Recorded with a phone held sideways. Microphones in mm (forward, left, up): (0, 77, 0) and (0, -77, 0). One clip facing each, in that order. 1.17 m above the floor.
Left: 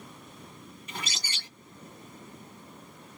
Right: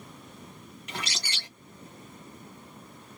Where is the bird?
70° right (ahead or behind), 1.4 m.